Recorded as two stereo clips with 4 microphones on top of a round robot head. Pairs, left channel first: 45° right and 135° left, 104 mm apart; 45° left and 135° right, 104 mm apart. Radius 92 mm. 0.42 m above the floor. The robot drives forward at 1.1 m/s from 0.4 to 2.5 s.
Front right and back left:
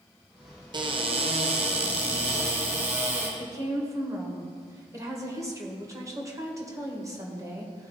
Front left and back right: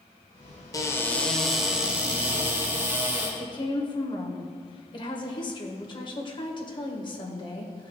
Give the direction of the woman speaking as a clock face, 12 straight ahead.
9 o'clock.